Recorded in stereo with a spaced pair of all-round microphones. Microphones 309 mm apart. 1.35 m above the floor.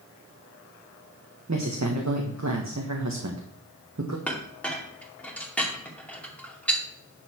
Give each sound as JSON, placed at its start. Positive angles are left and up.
{"t": 1.5, "sound": "a woman speaking", "side_deg": -60, "distance_m": 1.6}
{"t": 4.3, "sound": "a clink", "side_deg": 5, "distance_m": 2.5}